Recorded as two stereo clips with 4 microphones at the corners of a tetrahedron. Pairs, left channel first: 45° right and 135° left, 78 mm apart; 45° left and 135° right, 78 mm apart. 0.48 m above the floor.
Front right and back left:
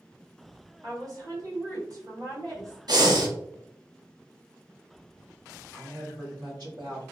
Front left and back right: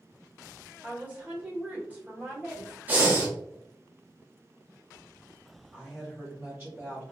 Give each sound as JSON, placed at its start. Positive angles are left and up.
{"t": 0.8, "sound": "a woman speaking", "azimuth_deg": 160, "distance_m": 1.3}
{"t": 2.9, "sound": "breathing", "azimuth_deg": 160, "distance_m": 0.7}
{"t": 5.7, "sound": "a woman speaking", "azimuth_deg": 150, "distance_m": 1.4}